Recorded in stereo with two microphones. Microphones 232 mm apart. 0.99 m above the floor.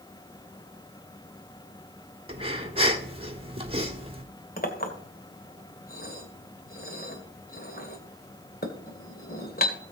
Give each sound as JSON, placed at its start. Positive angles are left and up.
{"t": 2.3, "sound": "breathing", "side_deg": -25, "distance_m": 1.5}
{"t": 4.6, "sound": "a clink", "side_deg": 40, "distance_m": 2.0}